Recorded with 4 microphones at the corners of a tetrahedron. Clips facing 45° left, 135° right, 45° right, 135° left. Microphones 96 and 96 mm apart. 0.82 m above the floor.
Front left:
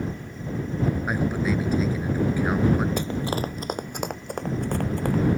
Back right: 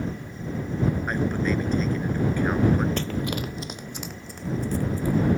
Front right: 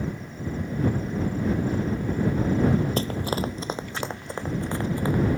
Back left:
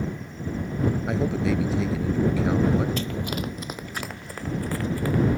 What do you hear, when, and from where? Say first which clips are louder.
1.1 s a man speaking: even, back left 2 dB; 125° left
3.0 s running footsteps: front left 1 dB, front right 2 dB; 25° right; by 5.2 s 25° left